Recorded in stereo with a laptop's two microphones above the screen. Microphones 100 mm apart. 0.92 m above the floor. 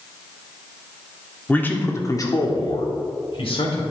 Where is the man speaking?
15° left (ahead or behind), 1.7 m; by 3.8 s 70° left (ahead or behind), 2.5 m.